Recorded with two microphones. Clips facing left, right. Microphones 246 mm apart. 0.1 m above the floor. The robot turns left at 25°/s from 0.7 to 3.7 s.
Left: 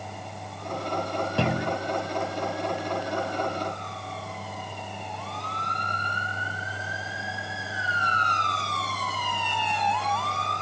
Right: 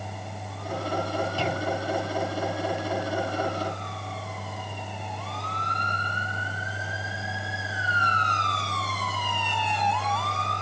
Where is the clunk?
65° left (ahead or behind); by 1.8 s 75° left (ahead or behind).